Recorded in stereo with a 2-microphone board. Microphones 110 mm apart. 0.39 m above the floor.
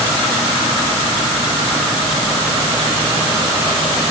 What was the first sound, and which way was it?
Only background noise.